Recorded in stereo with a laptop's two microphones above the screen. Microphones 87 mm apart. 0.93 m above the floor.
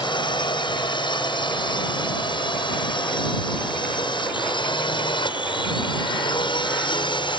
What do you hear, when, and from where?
0.0 s a drone: 65° left (ahead or behind)